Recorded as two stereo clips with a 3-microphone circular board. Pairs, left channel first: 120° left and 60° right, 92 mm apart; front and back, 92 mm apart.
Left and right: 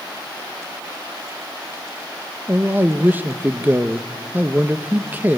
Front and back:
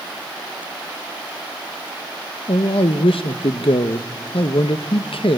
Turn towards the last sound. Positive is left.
turn(degrees=10)